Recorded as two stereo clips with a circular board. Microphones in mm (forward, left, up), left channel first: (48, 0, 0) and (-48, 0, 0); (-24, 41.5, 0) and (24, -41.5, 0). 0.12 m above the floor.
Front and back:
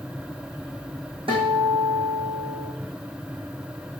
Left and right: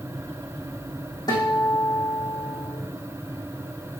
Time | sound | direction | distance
1.3 | a guitar | 165° left | 4.5 m